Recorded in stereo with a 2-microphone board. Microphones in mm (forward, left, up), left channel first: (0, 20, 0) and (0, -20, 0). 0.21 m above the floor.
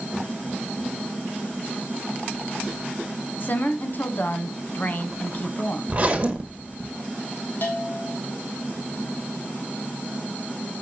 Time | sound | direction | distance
3.4 | a woman speaking | 45° left (ahead or behind) | 1.6 m
5.9 | a zipper | 35° right (ahead or behind) | 1.7 m
7.6 | a bell | 50° left (ahead or behind) | 3 m